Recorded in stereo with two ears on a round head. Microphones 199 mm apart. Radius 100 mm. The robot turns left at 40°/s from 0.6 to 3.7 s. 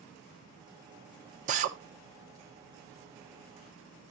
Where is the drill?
35° right (ahead or behind), 1.0 m.